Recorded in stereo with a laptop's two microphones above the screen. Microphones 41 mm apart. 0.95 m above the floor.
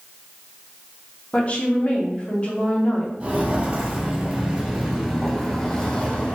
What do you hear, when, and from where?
1.3 s a woman speaking: 30° left (ahead or behind), 0.6 m
3.2 s footsteps: 35° right (ahead or behind), 1.3 m; by 6.3 s 20° left (ahead or behind), 1.1 m